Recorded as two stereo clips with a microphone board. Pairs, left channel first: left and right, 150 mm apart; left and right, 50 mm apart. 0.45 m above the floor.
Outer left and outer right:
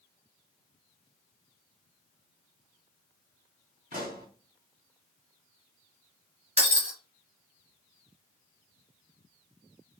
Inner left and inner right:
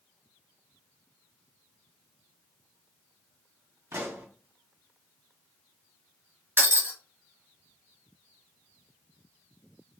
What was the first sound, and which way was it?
A pop, 80° right.